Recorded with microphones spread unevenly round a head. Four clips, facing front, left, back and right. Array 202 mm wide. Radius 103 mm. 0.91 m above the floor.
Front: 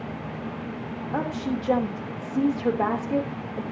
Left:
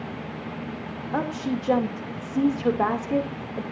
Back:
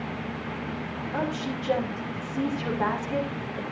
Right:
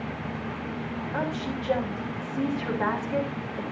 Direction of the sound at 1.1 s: 60° left.